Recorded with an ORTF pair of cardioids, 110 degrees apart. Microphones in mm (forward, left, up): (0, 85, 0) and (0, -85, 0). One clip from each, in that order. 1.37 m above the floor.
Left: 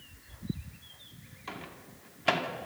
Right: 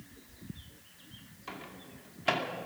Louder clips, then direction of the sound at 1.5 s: Left 2 dB; 10° left.